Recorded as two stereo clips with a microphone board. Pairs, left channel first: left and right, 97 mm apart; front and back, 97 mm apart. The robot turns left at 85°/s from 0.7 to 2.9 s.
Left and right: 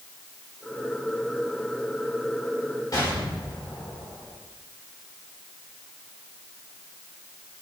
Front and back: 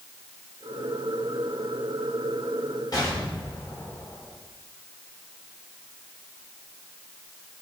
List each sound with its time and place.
2.9 s an explosion: 40° left, 4 m